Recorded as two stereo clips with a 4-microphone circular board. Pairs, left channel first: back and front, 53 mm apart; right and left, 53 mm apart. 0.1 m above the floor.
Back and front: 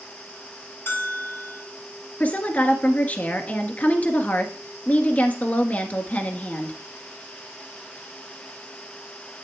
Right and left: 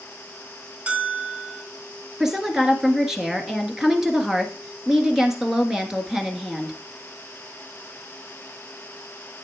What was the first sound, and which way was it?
A bell, 150° left.